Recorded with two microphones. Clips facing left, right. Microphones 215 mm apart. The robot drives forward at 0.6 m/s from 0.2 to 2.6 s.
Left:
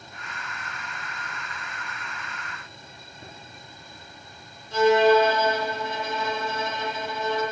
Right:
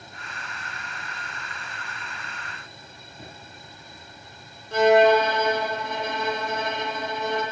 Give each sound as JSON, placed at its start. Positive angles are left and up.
{"t": 3.2, "sound": "a drawer", "side_deg": -75, "distance_m": 9.0}
{"t": 4.7, "sound": "a violin", "side_deg": -60, "distance_m": 4.0}